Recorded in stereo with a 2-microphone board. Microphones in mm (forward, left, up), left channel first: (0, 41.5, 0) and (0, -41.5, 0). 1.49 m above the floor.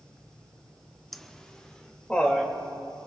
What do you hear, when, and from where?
1.1 s laughter: centre (ahead or behind), 0.6 m; by 2.5 s 15° left (ahead or behind), 2.5 m